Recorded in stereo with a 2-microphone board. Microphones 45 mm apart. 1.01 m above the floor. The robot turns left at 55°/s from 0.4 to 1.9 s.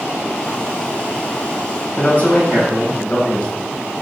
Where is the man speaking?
35° left (ahead or behind), 1.1 m.